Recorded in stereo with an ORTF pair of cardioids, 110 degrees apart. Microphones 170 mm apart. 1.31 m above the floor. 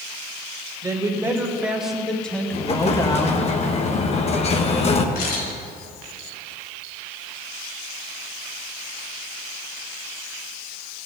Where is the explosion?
40° left, 1.0 m.